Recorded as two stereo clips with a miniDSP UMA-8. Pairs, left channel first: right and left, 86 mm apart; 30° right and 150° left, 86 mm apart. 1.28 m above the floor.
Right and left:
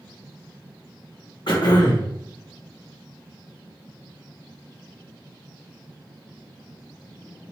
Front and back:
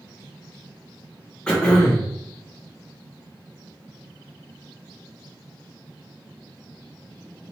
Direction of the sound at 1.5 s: 110° right.